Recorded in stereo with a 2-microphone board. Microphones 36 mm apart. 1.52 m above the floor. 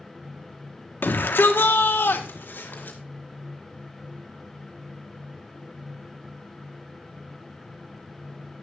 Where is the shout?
70° left (ahead or behind), 1.8 m; by 3.0 s 60° left (ahead or behind), 2.5 m.